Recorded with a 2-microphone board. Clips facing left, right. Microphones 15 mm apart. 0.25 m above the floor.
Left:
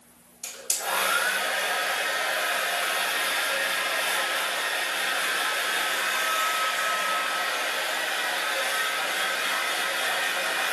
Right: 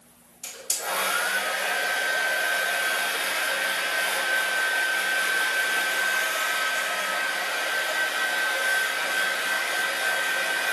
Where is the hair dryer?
35° left (ahead or behind), 1.3 m.